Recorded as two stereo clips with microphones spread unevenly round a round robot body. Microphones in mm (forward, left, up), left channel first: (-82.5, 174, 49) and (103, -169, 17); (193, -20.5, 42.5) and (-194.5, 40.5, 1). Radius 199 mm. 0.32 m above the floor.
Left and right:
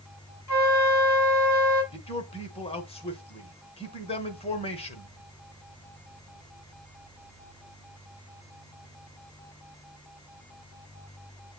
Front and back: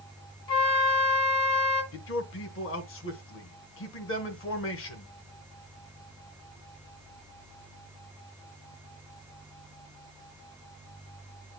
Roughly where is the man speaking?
Ahead left.